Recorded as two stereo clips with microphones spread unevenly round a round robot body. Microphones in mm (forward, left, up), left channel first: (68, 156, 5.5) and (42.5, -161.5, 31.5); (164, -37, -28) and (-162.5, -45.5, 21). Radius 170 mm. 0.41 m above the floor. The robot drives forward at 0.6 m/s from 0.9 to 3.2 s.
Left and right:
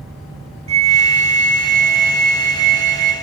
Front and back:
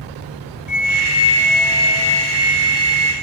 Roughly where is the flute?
Ahead right.